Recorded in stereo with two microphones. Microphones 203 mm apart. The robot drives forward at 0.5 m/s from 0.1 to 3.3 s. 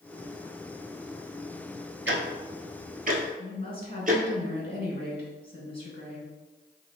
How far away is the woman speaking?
About 1.6 m.